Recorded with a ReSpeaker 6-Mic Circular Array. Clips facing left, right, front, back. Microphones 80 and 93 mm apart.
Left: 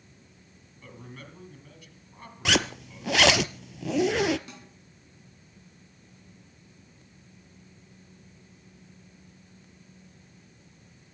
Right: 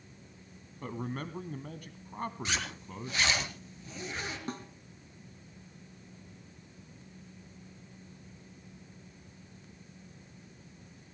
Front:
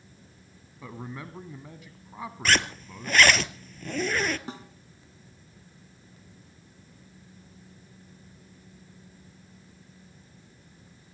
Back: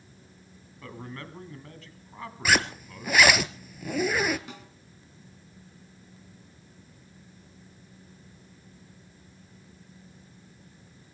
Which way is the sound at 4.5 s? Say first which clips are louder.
Right 8 dB, front 5 dB; 50° right.